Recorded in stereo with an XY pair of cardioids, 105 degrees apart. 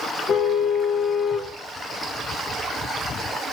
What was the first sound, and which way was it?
A car horn, 60° left.